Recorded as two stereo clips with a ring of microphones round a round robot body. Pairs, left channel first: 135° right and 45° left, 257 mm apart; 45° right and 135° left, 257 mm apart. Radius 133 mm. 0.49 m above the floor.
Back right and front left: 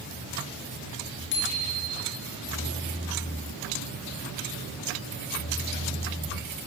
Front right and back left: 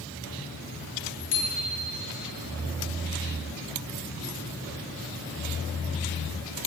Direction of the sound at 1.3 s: 85° right.